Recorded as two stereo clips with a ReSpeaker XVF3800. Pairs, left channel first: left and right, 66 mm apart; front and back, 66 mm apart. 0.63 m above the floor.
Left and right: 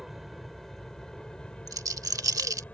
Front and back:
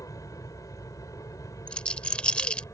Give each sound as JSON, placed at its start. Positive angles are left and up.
{"t": 0.0, "sound": "an aircraft", "azimuth_deg": 0}
{"t": 1.7, "sound": "a rattle", "azimuth_deg": -75}